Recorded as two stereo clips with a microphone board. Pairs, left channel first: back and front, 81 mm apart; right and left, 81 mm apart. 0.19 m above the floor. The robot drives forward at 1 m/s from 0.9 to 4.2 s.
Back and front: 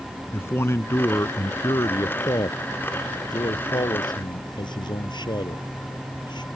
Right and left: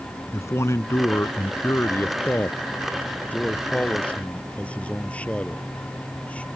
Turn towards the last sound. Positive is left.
turn(degrees=-165)